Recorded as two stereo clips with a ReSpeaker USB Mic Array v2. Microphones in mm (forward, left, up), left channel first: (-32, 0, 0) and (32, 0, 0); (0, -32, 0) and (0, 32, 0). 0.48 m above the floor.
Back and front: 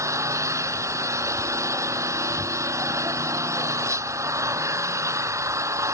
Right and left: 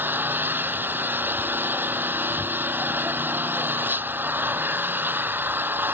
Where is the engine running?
35° left.